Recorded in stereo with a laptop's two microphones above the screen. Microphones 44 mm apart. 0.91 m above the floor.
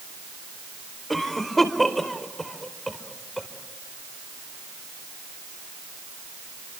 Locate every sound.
1.1 s a cough: 5° left (ahead or behind), 4.5 m